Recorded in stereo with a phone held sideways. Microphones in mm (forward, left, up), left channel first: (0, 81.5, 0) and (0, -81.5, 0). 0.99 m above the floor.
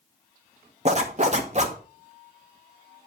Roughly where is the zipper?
Right.